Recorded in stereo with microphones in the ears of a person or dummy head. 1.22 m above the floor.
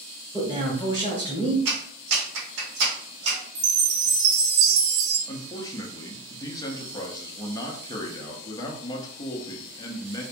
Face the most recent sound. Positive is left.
turn(degrees=15)  # may be behind; listen again after turning